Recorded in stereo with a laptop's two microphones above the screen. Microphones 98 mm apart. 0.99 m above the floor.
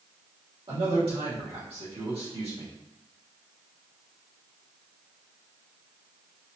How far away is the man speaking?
About 1.8 m.